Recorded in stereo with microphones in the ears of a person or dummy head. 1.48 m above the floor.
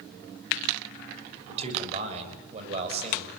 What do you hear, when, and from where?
1.5 s a man speaking: 35° right (ahead or behind), 7 m